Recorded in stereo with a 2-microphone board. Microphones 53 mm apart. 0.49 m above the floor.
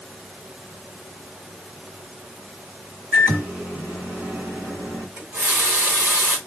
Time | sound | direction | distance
3.1 | a microwave | 45° right (ahead or behind) | 1.5 m
5.2 | a running tap | 65° right (ahead or behind) | 1.5 m